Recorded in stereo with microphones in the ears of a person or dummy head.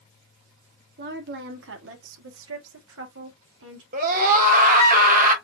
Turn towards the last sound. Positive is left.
turn(degrees=-45)  # may be behind; listen again after turning